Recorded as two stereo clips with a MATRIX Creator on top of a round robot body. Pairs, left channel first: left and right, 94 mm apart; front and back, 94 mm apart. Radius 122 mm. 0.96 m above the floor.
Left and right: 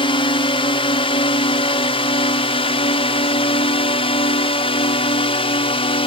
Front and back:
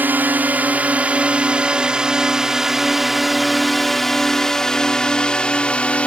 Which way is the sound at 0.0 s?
110° left.